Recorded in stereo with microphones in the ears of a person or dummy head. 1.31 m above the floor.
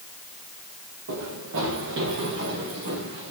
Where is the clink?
I don't hear a clink.